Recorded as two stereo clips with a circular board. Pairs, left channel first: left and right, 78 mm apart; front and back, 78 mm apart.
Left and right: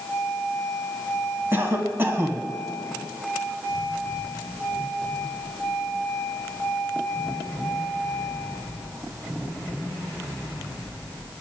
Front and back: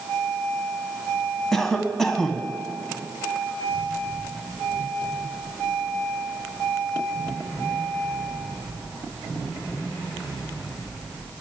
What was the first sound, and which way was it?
A cough, 80° right.